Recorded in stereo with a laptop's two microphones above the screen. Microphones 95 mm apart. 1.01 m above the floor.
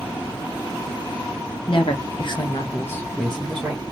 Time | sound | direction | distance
1.7 | a woman speaking | 65° left (ahead or behind) | 1.1 m